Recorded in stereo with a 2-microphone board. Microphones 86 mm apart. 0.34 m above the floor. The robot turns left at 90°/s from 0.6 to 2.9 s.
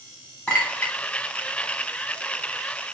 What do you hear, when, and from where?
0.5 s a clink: 10° left (ahead or behind), 1.2 m; by 0.9 s 35° left (ahead or behind), 1.2 m